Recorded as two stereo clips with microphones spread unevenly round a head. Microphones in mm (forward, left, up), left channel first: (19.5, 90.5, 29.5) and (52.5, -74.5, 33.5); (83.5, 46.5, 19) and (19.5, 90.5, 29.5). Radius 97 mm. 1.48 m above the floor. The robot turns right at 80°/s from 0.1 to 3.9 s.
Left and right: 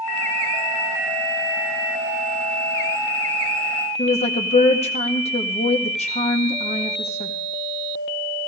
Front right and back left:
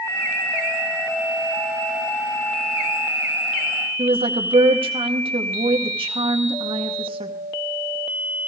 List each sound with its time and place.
4.0 s a woman speaking: 160° left, 1.8 m